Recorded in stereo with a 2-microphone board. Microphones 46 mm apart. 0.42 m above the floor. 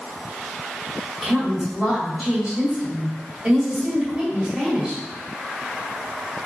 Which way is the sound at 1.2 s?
25° right (ahead or behind).